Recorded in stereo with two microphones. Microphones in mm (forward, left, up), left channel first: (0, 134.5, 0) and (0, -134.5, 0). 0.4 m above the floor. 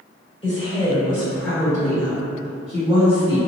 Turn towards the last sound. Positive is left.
turn(degrees=-10)  # may be behind; listen again after turning